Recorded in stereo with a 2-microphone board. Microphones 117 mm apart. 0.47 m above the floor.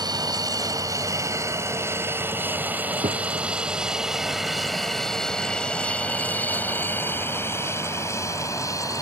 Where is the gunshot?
85° right.